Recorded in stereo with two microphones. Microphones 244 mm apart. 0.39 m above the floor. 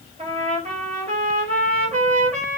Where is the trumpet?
30° right (ahead or behind), 1.2 m.